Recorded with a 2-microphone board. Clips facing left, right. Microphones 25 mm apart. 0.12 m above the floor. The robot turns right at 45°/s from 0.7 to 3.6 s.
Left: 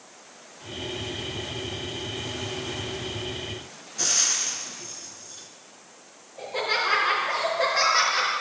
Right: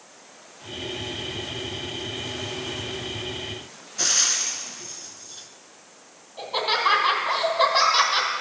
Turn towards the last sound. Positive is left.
turn(degrees=-65)  # may be behind; listen again after turning